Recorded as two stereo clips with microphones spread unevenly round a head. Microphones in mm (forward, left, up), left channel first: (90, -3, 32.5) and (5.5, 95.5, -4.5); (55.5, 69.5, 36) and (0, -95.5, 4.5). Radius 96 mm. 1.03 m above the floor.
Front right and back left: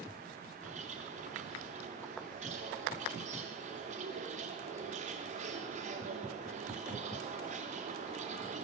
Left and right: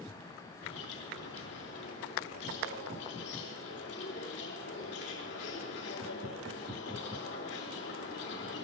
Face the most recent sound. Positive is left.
turn(degrees=105)